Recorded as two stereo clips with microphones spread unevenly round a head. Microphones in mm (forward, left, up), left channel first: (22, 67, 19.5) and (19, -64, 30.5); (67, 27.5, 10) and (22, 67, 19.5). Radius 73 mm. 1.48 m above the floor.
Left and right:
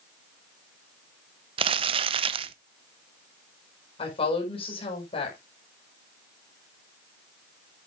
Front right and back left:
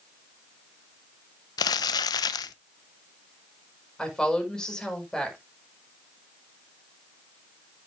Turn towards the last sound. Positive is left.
turn(degrees=40)